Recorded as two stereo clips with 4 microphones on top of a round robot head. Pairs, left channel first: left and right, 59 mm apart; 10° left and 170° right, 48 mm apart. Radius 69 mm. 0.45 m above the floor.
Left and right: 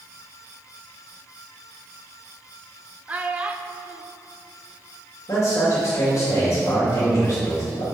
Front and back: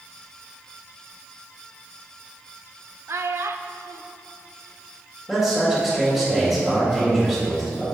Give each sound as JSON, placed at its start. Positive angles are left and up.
{"t": 3.1, "sound": "a child speaking", "azimuth_deg": -155, "distance_m": 0.6}
{"t": 5.3, "sound": "a man speaking", "azimuth_deg": 105, "distance_m": 2.0}